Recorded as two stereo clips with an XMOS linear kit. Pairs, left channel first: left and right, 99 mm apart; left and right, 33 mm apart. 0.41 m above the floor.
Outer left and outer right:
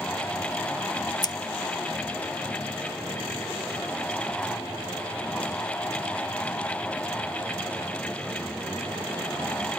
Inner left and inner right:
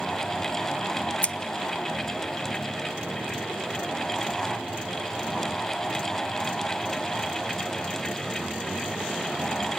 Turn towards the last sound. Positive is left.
turn(degrees=45)  # may be behind; listen again after turning